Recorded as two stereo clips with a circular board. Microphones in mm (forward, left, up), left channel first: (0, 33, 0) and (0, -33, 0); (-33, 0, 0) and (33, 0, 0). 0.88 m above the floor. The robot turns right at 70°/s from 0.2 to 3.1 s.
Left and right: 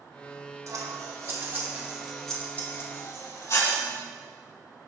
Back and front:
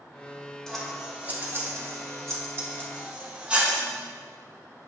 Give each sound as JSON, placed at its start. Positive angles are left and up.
{"t": 0.7, "sound": "scissors", "azimuth_deg": -100, "distance_m": 1.3}